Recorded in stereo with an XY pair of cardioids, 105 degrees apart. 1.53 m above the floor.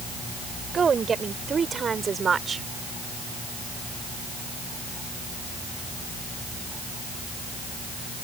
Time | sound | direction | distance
0.7 | a woman speaking | 40° right | ?